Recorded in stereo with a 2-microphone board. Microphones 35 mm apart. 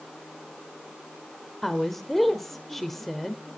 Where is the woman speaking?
5° left (ahead or behind), 1.3 m.